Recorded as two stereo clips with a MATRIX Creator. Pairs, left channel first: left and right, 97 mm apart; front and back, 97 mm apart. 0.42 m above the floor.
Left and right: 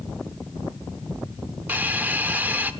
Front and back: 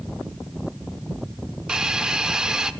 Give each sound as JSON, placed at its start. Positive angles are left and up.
{"t": 1.7, "sound": "a hiss", "azimuth_deg": -115, "distance_m": 0.6}